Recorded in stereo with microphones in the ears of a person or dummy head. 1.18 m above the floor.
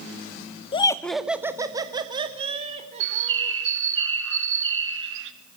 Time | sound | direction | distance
0.7 | laughter | 35° left (ahead or behind) | 0.8 m
3.0 | a bird | 80° right | 1.4 m